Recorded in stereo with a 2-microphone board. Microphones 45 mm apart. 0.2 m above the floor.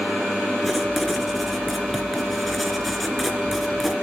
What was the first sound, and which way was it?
Writing, centre (ahead or behind).